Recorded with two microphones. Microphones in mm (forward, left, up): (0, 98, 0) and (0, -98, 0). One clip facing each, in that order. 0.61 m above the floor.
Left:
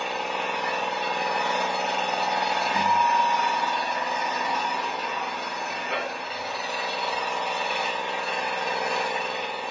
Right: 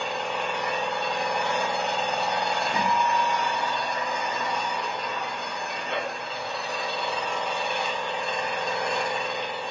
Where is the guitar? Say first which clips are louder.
Left 1 dB; 10° left (ahead or behind), 2 m.